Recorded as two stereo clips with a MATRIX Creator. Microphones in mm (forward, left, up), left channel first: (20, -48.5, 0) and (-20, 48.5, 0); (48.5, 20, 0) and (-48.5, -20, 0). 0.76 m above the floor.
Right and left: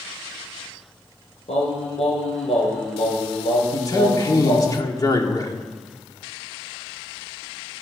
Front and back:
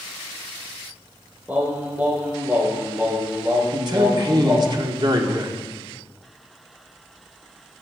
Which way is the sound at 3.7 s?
120° right.